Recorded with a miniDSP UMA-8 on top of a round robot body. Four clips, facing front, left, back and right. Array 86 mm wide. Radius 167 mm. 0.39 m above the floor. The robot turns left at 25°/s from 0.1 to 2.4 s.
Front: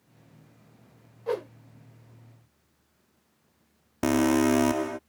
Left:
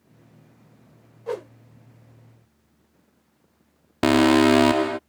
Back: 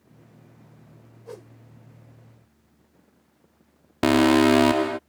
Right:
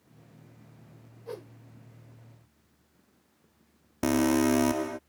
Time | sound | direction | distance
1.3 | a whoosh | 45° left | ?
4.0 | an alarm | 125° left | ?